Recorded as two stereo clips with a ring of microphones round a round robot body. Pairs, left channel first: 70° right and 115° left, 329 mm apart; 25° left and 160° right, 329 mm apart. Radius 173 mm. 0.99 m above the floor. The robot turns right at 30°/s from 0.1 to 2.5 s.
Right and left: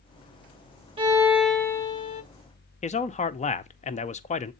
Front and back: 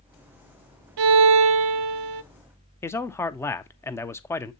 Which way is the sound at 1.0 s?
175° right.